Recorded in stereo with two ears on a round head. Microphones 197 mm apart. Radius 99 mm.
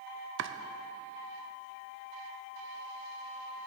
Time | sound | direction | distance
0.4 | chopping | 55° right (ahead or behind) | 0.5 m